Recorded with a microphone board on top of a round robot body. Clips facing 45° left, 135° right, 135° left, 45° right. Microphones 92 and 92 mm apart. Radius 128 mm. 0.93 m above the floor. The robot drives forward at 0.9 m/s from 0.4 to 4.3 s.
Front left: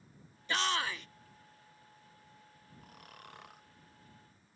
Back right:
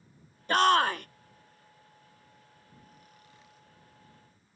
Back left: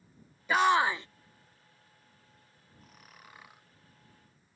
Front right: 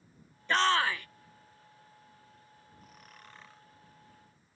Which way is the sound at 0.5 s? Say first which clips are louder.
Back right 11 dB, back left 3 dB; 145° right.